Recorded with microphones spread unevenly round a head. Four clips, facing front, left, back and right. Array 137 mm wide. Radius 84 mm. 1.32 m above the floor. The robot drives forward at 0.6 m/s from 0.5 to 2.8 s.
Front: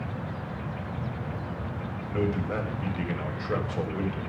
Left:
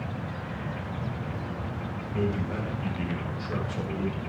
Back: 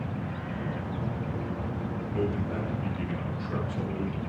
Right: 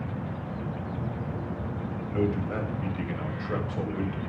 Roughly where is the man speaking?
Ahead.